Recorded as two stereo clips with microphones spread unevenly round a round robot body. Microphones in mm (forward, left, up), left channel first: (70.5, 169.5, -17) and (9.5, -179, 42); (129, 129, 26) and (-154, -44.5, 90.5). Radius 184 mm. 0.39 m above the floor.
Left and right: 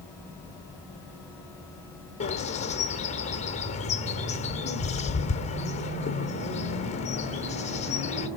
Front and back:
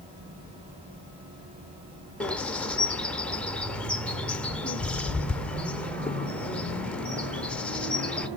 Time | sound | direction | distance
2.2 | a bird | 90° left | 0.9 m